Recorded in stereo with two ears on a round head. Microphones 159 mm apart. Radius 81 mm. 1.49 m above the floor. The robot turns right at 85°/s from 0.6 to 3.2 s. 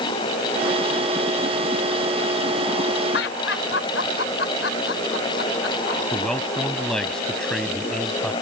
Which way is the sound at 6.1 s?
5° left (ahead or behind).